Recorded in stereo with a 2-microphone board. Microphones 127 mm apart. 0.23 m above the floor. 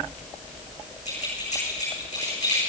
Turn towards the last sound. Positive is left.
turn(degrees=65)  # may be behind; listen again after turning